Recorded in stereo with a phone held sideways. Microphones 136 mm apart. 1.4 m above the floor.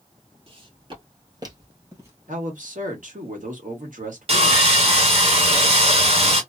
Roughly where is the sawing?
Right.